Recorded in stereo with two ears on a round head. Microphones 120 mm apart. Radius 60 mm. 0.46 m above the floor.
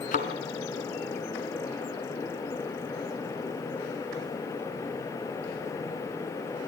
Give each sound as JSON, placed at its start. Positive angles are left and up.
{"t": 0.1, "sound": "a thud", "side_deg": 65, "distance_m": 2.0}